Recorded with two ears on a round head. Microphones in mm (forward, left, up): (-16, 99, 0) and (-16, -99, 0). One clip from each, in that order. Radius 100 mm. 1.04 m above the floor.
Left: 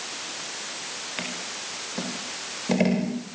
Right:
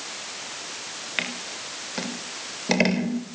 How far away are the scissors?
About 4.5 m.